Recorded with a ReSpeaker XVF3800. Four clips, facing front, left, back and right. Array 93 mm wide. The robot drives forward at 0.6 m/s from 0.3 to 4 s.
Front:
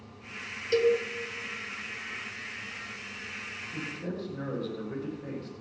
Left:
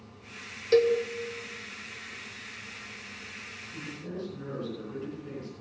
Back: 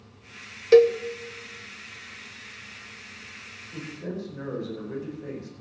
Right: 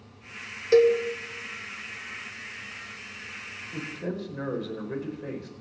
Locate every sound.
0.7 s a cowbell: 170° right, 1.2 m
3.7 s a man speaking: 100° right, 5 m